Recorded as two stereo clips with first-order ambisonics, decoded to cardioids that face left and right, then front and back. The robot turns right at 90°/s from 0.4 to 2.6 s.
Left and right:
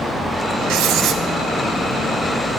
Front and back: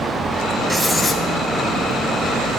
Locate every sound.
0.7 s writing: 100° right, 1.2 m; by 1.2 s 50° right, 1.2 m